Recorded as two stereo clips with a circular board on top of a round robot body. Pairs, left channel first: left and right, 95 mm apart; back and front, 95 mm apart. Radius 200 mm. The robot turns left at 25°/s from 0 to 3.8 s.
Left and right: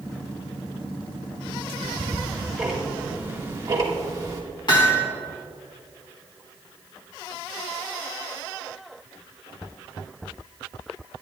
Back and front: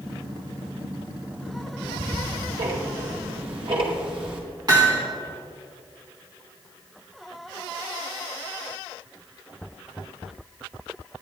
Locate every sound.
1.8 s ticking: 15° left, 2 m; by 4.4 s 35° right, 2 m
4.7 s hammering: 50° left, 2.5 m